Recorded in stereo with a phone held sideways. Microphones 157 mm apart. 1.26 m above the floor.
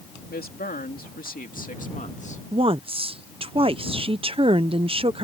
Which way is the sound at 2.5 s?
35° right (ahead or behind).